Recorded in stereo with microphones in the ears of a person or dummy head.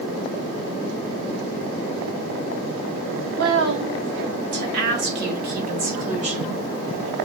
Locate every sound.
3.2 s a woman speaking: 70° right (ahead or behind), 3.5 m; by 6.6 s 30° right (ahead or behind), 2 m